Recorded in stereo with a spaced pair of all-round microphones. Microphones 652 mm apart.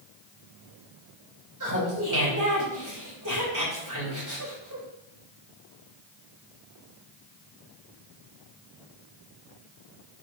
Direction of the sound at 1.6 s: 30° right (ahead or behind).